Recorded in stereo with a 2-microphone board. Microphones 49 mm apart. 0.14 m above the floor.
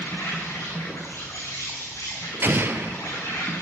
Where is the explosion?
45° right (ahead or behind), 0.8 m.